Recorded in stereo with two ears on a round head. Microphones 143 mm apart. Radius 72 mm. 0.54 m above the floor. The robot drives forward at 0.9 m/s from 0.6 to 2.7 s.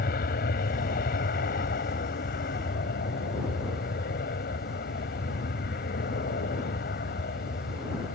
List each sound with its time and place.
0.0 s an aircraft: 60° left (ahead or behind)